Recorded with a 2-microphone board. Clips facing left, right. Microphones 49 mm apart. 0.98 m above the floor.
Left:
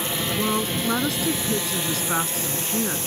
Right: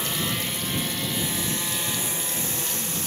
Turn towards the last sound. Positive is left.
turn(degrees=75)  # may be behind; listen again after turning